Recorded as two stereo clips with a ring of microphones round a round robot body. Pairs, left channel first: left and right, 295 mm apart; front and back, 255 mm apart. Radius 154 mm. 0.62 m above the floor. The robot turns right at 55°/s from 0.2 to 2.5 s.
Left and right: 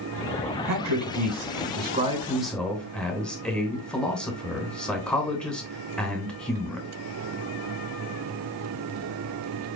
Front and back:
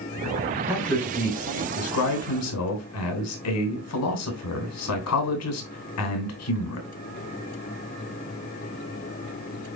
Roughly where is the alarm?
No alarm in this recording.